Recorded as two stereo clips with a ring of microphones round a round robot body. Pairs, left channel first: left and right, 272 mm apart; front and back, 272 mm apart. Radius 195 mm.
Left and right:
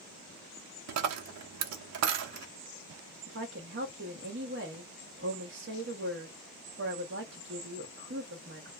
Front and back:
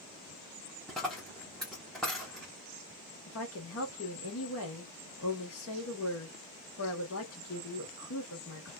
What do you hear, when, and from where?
0.9 s a dropped coin: 90° right, 0.6 m
3.3 s a woman speaking: 40° right, 1.1 m